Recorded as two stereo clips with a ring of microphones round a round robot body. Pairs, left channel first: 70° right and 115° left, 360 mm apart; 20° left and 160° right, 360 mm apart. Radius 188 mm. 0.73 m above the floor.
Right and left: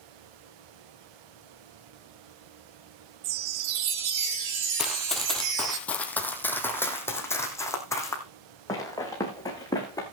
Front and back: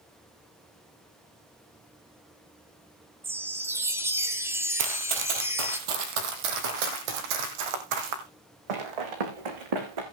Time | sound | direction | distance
3.2 | a chime | 120° left | 1.4 m
4.8 | running footsteps | 160° right | 1.4 m